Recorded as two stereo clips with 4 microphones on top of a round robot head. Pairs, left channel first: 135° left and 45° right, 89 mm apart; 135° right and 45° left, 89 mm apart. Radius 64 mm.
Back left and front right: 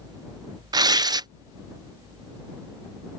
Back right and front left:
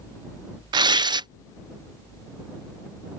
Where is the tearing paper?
5° left.